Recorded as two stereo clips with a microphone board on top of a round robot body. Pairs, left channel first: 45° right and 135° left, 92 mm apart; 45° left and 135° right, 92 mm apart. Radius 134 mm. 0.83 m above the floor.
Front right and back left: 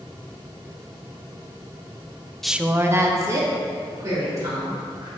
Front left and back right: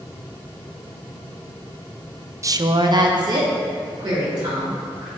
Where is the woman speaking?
130° right, 0.5 m; by 5.1 s 175° right, 4 m.